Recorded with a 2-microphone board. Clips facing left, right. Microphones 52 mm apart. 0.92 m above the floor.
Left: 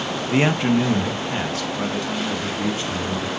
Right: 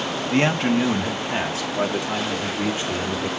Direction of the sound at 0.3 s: 10° left (ahead or behind).